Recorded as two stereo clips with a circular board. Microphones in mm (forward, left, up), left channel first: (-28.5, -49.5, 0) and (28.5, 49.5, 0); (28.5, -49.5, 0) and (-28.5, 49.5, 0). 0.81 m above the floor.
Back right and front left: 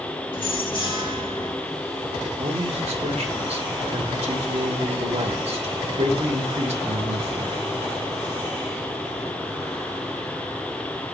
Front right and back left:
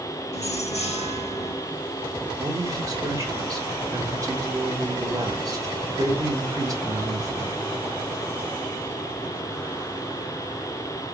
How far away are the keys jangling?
About 1.4 m.